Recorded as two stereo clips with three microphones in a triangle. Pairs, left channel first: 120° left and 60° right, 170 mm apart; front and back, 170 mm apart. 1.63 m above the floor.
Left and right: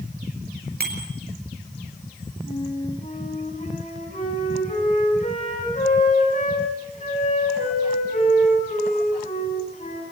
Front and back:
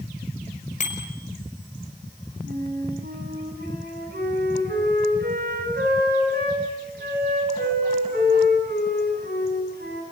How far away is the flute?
About 8 m.